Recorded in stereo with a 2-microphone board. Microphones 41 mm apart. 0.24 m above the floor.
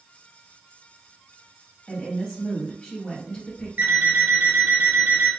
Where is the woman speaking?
25° left (ahead or behind), 1.4 m.